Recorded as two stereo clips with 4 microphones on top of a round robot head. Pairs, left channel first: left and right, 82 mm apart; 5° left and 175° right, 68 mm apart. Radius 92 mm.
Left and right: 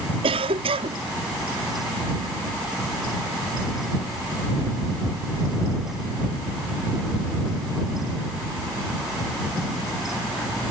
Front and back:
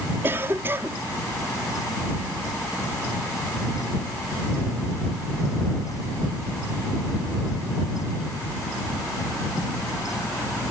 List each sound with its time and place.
0.2 s a cough: 105° right